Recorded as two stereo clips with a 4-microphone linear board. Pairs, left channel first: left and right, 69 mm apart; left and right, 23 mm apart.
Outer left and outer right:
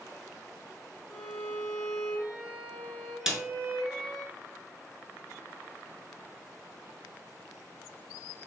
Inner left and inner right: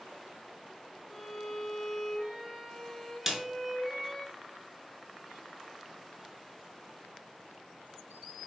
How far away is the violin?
About 1.5 m.